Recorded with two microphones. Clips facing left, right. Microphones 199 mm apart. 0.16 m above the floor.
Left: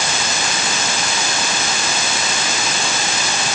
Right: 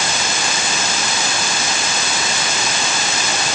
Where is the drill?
No drill in this recording.